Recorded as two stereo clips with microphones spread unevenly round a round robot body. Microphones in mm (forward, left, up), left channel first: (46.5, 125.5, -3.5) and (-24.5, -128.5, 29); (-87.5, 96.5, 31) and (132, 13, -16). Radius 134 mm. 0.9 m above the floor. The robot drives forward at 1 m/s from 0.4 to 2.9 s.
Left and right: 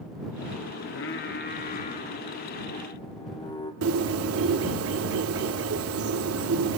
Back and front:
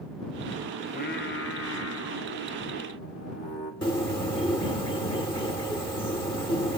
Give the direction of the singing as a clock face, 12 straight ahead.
9 o'clock.